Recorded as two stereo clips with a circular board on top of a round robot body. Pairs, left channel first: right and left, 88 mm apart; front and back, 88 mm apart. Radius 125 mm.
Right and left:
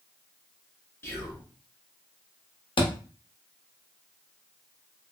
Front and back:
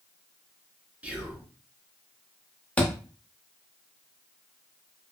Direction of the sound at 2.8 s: 75° right.